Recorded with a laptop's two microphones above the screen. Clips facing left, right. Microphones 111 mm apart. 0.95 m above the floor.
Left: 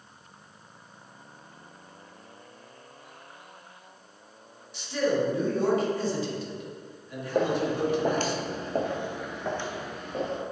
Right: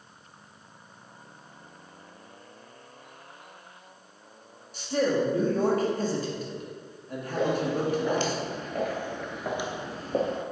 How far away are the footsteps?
About 2.5 m.